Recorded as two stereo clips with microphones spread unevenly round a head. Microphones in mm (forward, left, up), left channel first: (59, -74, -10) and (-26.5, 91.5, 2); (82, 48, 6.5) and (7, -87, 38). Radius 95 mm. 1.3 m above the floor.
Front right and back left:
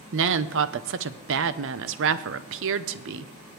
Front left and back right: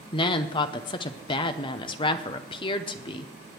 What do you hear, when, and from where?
0.1 s a woman speaking: 115° left, 0.7 m